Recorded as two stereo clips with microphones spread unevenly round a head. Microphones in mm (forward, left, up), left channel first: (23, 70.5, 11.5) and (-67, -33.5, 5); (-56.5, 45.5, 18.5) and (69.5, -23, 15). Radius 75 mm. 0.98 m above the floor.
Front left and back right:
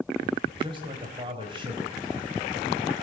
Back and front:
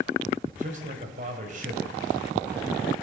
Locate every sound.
0.6 s a man speaking: 70° right, 4.5 m